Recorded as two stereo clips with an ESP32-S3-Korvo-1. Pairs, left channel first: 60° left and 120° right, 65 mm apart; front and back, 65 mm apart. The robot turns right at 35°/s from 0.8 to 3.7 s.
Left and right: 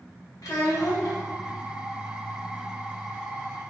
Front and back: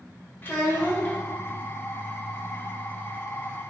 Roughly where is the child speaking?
Ahead left.